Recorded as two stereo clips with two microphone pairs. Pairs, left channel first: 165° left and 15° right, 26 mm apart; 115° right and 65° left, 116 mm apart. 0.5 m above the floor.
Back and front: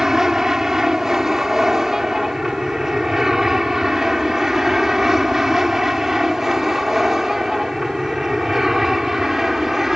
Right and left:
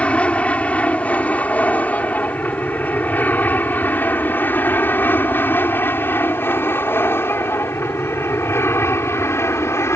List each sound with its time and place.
0.0 s an aircraft: 50° right; by 10.0 s 75° right